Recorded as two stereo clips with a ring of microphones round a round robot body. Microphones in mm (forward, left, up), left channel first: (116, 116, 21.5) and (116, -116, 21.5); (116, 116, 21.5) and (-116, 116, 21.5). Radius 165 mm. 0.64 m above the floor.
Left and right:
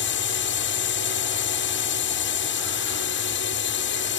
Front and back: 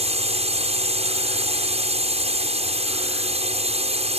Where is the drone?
125° left.